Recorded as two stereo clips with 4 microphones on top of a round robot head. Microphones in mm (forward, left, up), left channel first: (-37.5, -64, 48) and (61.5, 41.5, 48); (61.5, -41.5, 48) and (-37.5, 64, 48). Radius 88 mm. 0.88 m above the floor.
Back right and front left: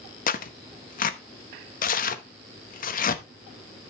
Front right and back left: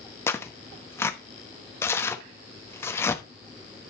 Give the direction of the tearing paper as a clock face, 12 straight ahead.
4 o'clock.